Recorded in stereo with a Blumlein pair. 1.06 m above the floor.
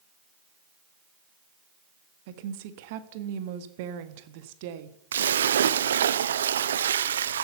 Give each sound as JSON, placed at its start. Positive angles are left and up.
{"t": 2.3, "sound": "a woman speaking", "azimuth_deg": -50, "distance_m": 1.5}
{"t": 5.1, "sound": "a splash", "azimuth_deg": -65, "distance_m": 0.6}